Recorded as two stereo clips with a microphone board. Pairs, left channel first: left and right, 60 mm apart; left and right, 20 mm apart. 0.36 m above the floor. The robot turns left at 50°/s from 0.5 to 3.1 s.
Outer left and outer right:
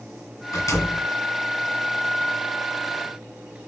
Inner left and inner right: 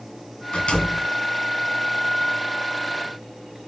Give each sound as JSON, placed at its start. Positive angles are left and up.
{"t": 0.5, "sound": "a door slam", "side_deg": 75, "distance_m": 3.0}